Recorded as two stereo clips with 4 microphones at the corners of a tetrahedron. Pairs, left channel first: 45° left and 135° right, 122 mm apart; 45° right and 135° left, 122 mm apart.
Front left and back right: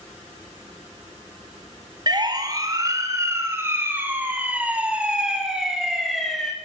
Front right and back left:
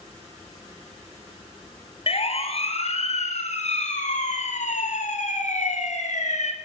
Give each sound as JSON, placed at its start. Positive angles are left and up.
{"t": 2.1, "sound": "a siren", "azimuth_deg": -80, "distance_m": 4.5}